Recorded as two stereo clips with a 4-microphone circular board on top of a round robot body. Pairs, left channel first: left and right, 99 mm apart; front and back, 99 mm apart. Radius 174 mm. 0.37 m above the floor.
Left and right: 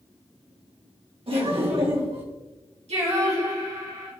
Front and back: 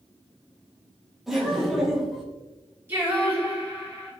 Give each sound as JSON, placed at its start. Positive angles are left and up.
{"t": 1.3, "sound": "laughter", "azimuth_deg": -90, "distance_m": 2.5}
{"t": 2.9, "sound": "singing", "azimuth_deg": -110, "distance_m": 3.0}